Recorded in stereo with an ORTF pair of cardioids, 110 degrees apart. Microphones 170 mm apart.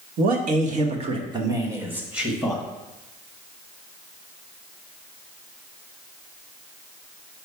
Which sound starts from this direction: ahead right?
A man speaking, at 0.2 s.